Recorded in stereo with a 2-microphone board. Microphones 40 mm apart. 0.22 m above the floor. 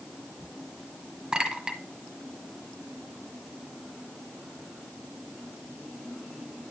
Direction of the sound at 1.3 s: 20° right (ahead or behind).